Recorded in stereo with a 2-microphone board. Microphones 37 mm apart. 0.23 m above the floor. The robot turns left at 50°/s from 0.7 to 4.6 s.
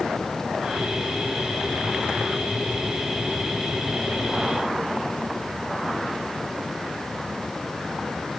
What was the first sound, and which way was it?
Only background noise.